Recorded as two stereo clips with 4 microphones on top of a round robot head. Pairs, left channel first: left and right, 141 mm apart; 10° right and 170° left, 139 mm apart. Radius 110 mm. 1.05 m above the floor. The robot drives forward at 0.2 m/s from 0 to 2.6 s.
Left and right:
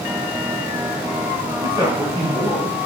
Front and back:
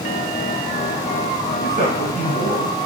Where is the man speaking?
150° right, 4 m.